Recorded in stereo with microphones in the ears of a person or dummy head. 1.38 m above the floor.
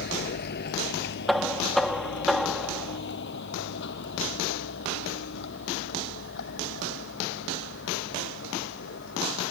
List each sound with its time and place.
0.0 s a vehicle: 50° left (ahead or behind); by 9.5 s 60° left (ahead or behind)
1.3 s knocking: 5° right (ahead or behind)